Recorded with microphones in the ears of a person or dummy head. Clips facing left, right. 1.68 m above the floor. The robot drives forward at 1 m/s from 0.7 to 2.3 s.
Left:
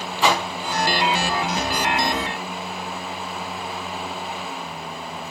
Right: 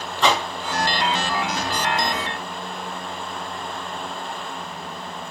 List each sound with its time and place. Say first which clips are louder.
0.2 s a whoosh: even; 10° left (ahead or behind), 3 m